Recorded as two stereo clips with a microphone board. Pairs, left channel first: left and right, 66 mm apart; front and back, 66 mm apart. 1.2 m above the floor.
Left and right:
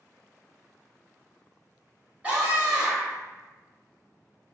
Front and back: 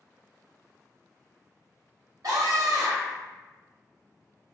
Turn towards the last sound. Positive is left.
turn(degrees=-165)